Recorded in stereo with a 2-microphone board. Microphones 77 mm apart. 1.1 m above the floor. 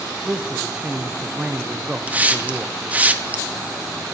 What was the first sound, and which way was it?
A man speaking, 15° right (ahead or behind).